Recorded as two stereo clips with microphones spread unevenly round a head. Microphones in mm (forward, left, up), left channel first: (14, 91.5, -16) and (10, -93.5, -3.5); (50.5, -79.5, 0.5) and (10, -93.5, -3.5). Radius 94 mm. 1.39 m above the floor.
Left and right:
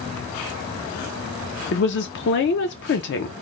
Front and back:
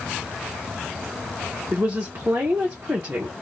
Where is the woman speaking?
120° left, 0.5 m.